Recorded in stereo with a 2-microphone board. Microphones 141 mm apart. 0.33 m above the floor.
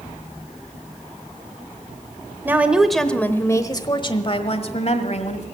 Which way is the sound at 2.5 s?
15° right (ahead or behind).